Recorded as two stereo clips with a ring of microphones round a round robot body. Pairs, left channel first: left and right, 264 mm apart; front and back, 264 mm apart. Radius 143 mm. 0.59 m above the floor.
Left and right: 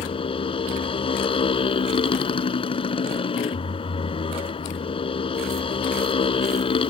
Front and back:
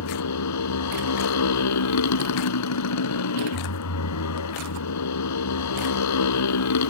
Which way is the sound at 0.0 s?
20° left.